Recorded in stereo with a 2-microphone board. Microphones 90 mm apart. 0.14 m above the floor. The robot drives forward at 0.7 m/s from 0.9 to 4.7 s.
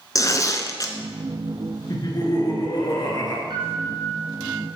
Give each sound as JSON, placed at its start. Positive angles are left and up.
{"t": 0.1, "sound": "tearing paper", "side_deg": 40, "distance_m": 0.8}
{"t": 1.9, "sound": "laughter", "side_deg": 45, "distance_m": 2.0}
{"t": 3.5, "sound": "a piano", "side_deg": -60, "distance_m": 1.8}